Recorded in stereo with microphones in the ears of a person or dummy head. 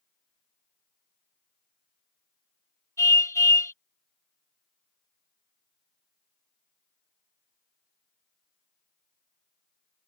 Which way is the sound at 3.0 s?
20° left (ahead or behind).